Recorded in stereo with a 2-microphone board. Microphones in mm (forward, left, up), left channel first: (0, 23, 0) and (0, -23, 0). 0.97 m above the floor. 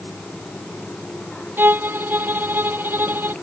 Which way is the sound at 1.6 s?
50° right (ahead or behind).